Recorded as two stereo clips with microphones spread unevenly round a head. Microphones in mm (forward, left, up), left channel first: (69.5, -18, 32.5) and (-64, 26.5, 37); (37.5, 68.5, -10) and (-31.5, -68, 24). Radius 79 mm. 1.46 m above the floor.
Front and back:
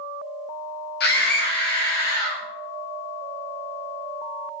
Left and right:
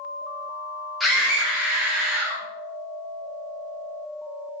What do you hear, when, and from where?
1.0 s a scream: 25° right, 1.3 m; by 2.4 s 35° right, 2.5 m